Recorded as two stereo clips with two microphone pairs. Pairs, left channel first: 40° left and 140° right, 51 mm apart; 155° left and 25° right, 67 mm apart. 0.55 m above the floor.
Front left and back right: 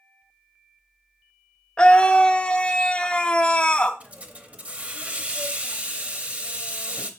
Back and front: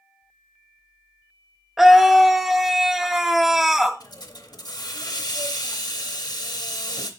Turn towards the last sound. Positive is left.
turn(degrees=155)